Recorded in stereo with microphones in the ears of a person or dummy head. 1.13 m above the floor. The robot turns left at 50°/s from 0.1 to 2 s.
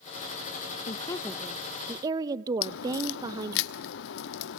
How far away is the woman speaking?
About 0.8 m.